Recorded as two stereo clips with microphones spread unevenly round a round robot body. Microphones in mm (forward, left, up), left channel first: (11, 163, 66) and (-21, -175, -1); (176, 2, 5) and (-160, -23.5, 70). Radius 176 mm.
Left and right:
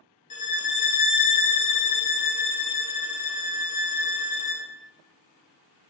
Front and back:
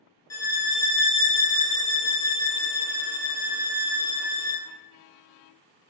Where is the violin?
20° left, 0.5 m.